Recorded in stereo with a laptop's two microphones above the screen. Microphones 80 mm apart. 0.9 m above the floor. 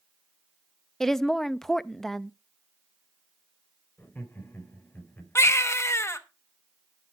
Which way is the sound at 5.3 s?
35° left (ahead or behind).